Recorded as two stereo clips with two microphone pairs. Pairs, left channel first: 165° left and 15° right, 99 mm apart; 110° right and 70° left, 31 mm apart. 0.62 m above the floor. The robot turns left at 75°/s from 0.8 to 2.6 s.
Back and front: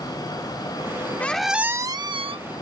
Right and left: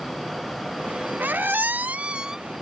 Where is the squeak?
90° left; by 2.4 s straight ahead.